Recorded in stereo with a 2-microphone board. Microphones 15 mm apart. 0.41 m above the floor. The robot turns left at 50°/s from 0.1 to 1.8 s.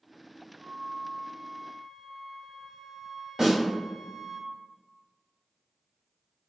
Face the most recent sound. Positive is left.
turn(degrees=-45)  # may be behind; listen again after turning